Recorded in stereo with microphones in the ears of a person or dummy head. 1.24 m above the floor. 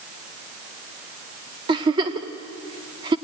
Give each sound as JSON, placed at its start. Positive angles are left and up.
{"t": 1.7, "sound": "a giggle", "side_deg": -20, "distance_m": 1.2}